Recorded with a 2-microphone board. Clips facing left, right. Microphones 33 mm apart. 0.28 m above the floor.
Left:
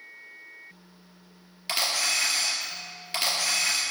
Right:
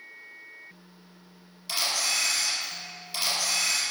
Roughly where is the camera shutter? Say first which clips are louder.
Left 1 dB; left.